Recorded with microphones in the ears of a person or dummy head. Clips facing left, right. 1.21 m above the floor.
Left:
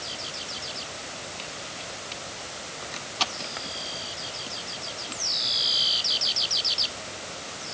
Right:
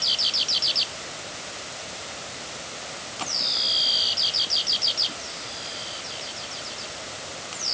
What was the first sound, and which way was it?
Only background noise.